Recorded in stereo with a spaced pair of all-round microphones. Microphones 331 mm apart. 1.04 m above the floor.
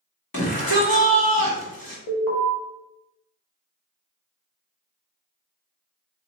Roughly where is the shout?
Left.